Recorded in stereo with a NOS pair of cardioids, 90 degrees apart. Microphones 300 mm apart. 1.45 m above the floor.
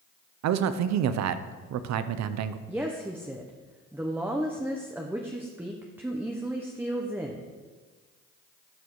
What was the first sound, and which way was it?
A man speaking, 65° right.